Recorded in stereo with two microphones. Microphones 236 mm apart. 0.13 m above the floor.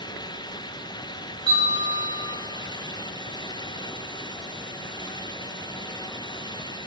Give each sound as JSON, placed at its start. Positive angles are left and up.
{"t": 1.5, "sound": "a bell", "side_deg": 55, "distance_m": 1.5}